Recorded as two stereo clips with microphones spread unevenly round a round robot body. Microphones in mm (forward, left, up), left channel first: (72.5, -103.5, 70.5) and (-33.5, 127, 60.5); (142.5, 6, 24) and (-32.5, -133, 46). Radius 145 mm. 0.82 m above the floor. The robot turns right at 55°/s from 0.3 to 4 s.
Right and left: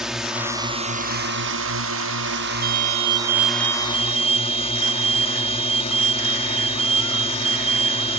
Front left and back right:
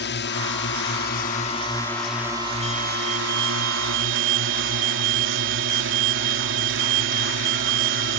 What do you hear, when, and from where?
0.0 s a drone: 30° left; by 8.2 s 130° right
2.6 s an alarm: 105° left; by 8.2 s straight behind